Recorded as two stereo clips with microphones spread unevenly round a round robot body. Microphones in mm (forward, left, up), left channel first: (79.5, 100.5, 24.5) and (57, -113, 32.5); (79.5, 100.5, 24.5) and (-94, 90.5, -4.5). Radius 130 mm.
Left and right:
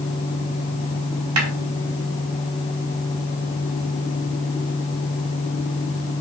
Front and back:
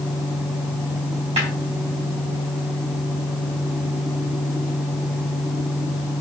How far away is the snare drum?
About 3.5 m.